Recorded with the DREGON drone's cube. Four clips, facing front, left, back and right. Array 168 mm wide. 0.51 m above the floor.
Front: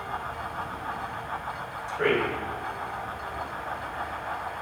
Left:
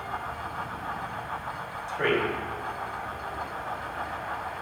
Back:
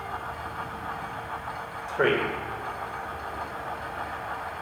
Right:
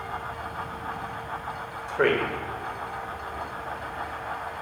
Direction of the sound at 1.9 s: 130° right.